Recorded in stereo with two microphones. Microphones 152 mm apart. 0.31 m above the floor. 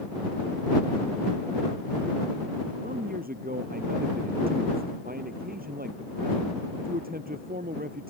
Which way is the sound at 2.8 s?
75° right (ahead or behind).